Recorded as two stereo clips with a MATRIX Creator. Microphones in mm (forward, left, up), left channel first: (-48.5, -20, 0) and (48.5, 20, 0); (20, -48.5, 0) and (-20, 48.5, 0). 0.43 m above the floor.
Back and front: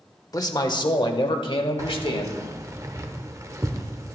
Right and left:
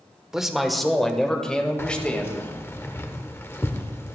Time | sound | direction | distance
0.3 | a man speaking | 165° right | 1.0 m
1.8 | keys jangling | 15° right | 0.8 m